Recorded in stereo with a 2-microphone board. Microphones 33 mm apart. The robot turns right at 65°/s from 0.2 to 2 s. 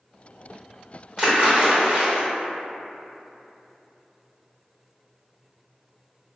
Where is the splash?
20° right (ahead or behind), 1.1 m; by 2.2 s 45° right (ahead or behind), 1.1 m.